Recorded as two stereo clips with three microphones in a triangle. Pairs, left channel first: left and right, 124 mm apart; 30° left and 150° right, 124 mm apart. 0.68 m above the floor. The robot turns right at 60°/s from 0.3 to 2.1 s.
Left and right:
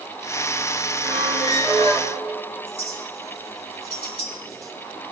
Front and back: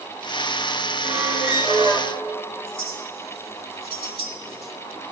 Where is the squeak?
Straight ahead, 3 m; by 2.1 s 65° left, 3 m.